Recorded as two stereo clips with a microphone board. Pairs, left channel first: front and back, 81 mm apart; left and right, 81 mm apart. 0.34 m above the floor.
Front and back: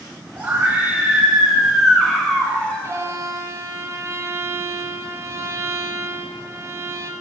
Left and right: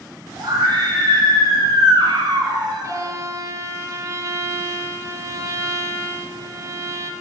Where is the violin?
135° right, 0.8 m.